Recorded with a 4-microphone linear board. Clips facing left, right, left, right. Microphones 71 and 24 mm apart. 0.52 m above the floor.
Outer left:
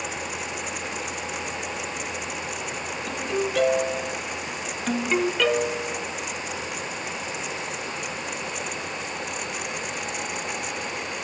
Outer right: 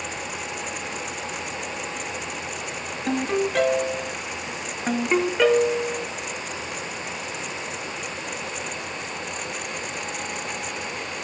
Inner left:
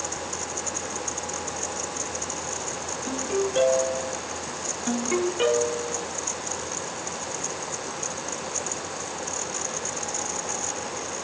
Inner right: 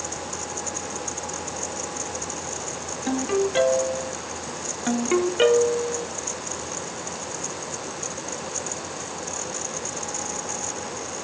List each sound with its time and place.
3.1 s a ringtone: 55° right (ahead or behind), 1.4 m
4.9 s a ringtone: 25° right (ahead or behind), 0.9 m